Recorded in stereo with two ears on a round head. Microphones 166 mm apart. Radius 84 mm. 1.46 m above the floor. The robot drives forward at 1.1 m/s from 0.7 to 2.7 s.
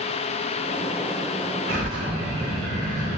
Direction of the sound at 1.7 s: 80° right.